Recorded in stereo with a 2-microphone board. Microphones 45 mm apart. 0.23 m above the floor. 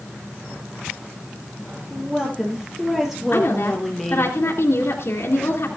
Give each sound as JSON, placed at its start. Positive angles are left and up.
{"t": 1.9, "sound": "a woman speaking", "side_deg": -20, "distance_m": 5.5}
{"t": 3.3, "sound": "a woman speaking", "side_deg": 65, "distance_m": 3.0}